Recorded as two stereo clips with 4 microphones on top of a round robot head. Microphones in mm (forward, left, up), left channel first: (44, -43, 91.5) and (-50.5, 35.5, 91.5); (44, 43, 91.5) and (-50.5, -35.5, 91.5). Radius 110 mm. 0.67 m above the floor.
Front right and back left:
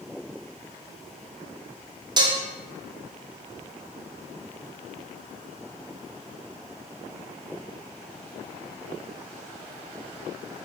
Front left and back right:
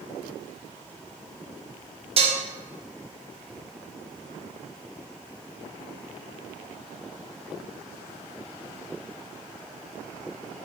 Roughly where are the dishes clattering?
Behind.